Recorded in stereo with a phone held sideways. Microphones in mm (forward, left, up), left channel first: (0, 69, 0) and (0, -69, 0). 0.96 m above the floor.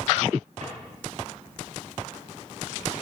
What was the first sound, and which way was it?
A drawer, 75° right (ahead or behind).